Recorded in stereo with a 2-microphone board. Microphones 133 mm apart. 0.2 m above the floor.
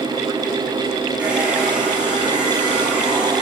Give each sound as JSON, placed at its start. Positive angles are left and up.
{"t": 1.2, "sound": "a hair dryer", "side_deg": -10, "distance_m": 6.5}